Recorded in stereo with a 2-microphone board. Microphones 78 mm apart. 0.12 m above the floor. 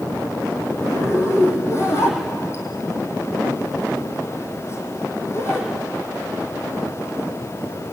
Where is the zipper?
35° left (ahead or behind), 4 m.